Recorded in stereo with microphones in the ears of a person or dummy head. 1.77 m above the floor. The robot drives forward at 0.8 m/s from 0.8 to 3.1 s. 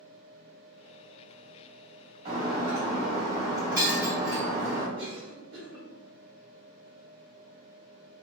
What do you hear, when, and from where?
2.2 s breaking glass: 30° right (ahead or behind), 1.7 m; by 4.9 s 20° right (ahead or behind), 2 m
5.0 s a cough: 25° right (ahead or behind), 1.4 m